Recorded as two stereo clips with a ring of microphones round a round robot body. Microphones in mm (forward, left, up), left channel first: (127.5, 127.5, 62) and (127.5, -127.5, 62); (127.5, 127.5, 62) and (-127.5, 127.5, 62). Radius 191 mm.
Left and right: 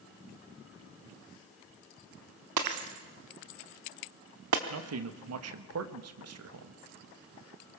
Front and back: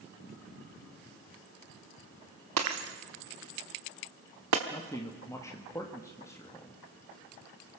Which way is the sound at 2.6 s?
130° right.